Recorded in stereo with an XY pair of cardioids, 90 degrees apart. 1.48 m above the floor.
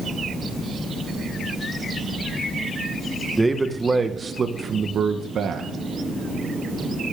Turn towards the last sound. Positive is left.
turn(degrees=-75)